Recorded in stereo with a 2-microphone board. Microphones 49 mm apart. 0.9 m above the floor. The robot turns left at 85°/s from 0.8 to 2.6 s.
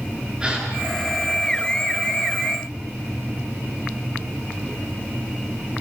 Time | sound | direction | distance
0.4 | a gasp | 20° right (ahead or behind) | 10 m